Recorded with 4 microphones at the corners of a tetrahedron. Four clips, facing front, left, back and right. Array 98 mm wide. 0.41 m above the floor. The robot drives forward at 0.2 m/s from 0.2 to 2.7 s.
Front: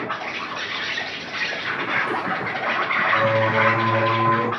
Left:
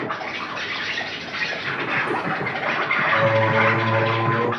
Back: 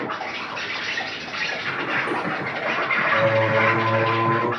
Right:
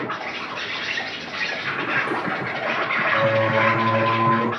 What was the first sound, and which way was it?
An insect, straight behind.